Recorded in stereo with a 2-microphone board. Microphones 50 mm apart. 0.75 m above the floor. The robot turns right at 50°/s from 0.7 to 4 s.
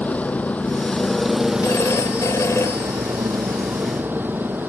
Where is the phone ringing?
55° left; by 4.7 s 175° left.